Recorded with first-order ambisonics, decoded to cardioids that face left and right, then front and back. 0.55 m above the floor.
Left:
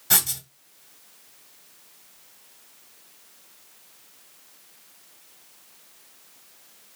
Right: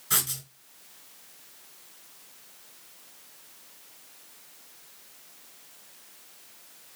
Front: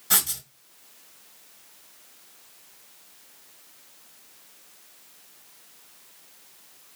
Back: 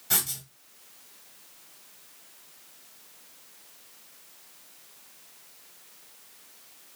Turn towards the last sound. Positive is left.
turn(degrees=85)